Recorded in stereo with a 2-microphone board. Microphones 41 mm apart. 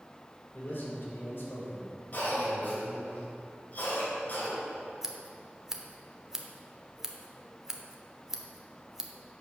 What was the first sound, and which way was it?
A man speaking, 50° left (ahead or behind).